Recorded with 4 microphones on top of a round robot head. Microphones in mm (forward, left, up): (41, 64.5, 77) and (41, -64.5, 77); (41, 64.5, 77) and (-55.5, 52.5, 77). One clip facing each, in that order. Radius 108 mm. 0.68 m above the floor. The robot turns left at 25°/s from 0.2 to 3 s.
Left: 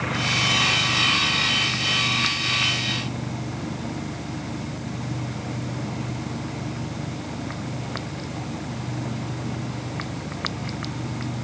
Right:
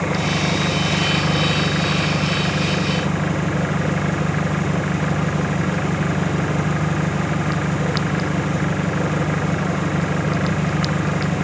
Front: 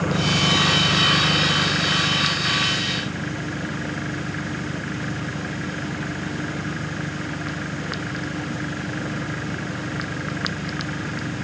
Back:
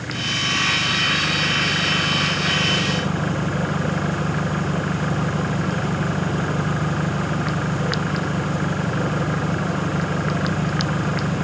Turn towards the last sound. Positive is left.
turn(degrees=-115)